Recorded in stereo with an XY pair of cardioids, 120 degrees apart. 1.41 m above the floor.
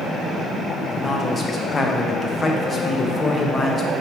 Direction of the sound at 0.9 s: 25° left.